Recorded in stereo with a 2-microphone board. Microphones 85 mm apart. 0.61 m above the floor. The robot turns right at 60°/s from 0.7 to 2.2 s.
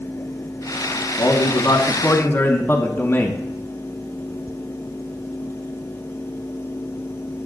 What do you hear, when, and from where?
1.2 s a man speaking: 85° left, 0.9 m; by 3.4 s 145° left, 0.9 m